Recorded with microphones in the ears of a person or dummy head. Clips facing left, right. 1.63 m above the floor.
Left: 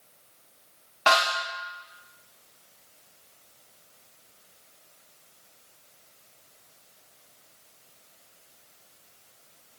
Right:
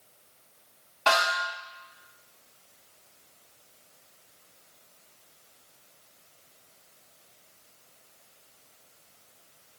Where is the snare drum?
20° left (ahead or behind), 1.4 m.